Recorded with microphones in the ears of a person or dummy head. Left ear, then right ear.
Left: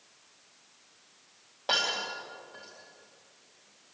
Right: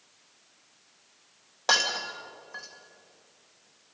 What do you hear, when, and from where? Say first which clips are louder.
1.7 s breaking glass: right 3 dB; 50° right (ahead or behind), 3 m